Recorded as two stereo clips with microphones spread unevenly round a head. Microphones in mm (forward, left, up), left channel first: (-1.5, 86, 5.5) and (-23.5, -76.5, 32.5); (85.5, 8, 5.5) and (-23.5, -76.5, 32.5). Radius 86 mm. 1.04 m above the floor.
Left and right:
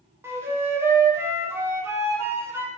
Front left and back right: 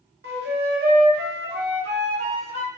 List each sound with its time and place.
0.2 s a flute: 175° right, 0.7 m